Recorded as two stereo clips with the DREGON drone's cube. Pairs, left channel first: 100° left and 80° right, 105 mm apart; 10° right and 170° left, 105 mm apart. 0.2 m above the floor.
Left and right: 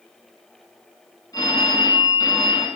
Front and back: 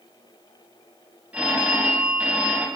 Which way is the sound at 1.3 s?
100° left.